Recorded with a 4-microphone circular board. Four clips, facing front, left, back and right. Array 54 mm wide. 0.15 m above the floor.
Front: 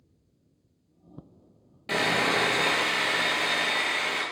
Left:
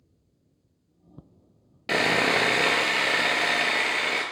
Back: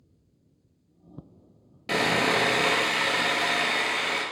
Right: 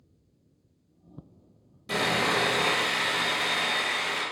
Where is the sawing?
100° left, 0.6 m.